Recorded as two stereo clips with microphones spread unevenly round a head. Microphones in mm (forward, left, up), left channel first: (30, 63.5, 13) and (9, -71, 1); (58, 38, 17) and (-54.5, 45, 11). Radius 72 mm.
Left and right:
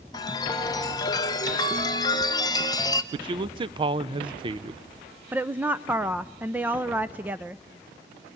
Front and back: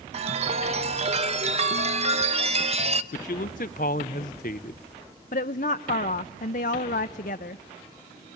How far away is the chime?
About 0.9 m.